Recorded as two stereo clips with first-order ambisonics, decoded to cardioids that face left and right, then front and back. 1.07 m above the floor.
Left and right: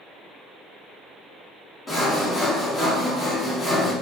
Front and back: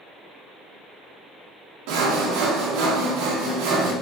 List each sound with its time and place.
1.9 s sawing: 170° left, 0.5 m